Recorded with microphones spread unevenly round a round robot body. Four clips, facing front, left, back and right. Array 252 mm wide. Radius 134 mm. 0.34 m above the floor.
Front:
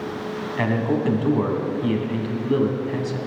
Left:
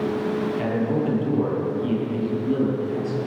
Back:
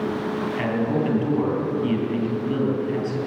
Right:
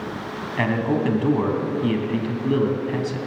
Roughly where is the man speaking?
Right.